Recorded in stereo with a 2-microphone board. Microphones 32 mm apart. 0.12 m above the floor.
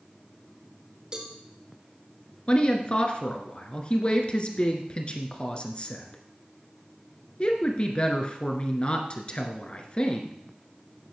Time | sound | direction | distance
1.1 | a cowbell | 30° right (ahead or behind) | 2.0 m
2.5 | a woman speaking | 35° left (ahead or behind) | 2 m